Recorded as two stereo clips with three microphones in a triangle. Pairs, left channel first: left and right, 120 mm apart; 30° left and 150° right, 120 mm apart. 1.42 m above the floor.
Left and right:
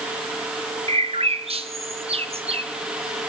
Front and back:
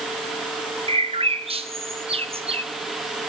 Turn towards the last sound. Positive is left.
turn(degrees=-120)